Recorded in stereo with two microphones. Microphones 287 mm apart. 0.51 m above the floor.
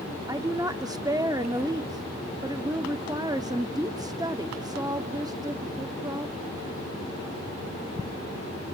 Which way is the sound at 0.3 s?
15° right (ahead or behind).